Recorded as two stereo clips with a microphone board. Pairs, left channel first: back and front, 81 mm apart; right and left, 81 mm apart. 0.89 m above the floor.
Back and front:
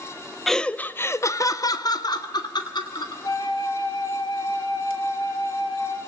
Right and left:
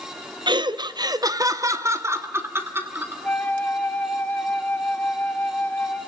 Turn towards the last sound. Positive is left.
turn(degrees=-160)